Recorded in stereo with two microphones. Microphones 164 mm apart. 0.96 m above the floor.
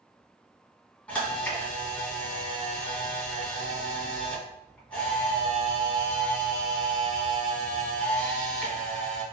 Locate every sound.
1.1 s a camera shutter: 10° left (ahead or behind), 1.8 m